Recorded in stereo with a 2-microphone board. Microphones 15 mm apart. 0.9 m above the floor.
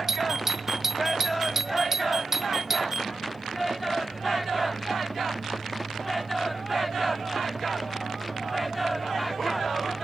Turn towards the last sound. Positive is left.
turn(degrees=-20)  # may be behind; listen again after turning